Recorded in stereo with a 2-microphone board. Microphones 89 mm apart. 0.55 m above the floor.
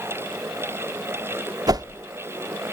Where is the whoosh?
45° right (ahead or behind), 0.6 m.